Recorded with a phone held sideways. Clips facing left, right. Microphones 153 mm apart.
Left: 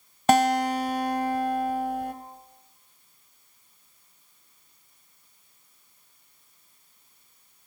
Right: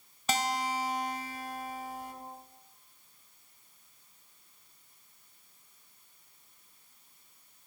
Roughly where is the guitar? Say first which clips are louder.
Left 12 dB; left.